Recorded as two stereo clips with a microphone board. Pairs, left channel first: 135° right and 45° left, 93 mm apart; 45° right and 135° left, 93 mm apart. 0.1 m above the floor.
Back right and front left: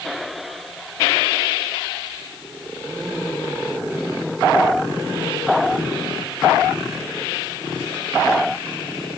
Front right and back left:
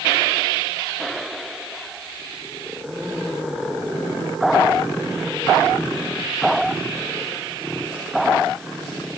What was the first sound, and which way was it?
Only background noise.